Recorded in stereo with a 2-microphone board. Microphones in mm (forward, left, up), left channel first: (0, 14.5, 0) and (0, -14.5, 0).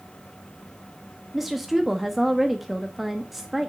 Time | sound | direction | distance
1.3 | a woman speaking | 5° right (ahead or behind) | 0.9 m